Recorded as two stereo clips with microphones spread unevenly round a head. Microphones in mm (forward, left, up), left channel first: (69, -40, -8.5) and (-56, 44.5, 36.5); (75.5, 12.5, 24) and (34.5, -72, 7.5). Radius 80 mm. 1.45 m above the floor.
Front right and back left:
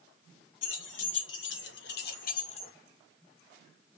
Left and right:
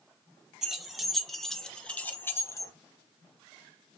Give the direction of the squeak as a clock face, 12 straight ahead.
I don't hear a squeak.